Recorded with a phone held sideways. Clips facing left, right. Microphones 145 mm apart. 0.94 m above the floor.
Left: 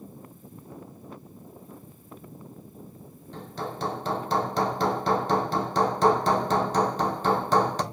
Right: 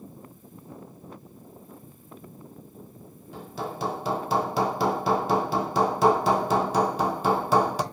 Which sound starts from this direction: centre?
Hammering, at 3.3 s.